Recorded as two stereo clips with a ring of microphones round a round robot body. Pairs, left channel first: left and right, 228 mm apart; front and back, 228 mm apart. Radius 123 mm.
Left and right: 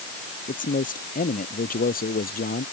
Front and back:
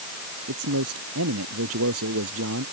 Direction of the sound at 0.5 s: 145° left.